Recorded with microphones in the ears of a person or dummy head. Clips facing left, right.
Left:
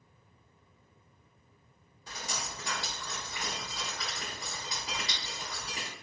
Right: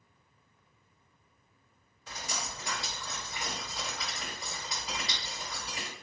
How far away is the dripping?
About 1.9 m.